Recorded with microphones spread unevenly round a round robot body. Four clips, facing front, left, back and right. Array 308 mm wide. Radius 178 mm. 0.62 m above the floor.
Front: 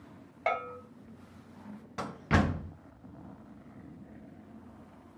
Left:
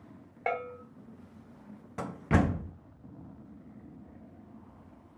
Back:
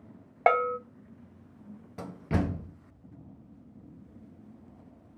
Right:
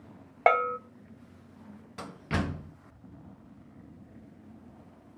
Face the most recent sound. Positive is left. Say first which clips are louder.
# left 5 dB, front 2 dB
turn(degrees=65)